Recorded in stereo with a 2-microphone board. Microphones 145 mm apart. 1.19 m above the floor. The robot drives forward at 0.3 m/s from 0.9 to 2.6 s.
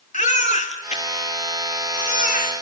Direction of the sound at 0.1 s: 55° left (ahead or behind).